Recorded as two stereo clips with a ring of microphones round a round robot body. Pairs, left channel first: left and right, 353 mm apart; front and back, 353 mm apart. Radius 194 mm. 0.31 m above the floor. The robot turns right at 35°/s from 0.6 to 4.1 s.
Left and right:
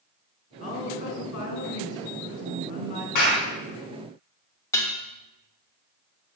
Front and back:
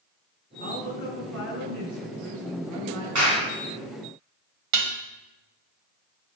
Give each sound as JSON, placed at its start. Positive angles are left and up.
{"t": 0.6, "sound": "a woman speaking", "azimuth_deg": 25, "distance_m": 4.0}
{"t": 3.1, "sound": "a clap", "azimuth_deg": 130, "distance_m": 3.5}
{"t": 4.7, "sound": "dishes clattering", "azimuth_deg": 170, "distance_m": 1.3}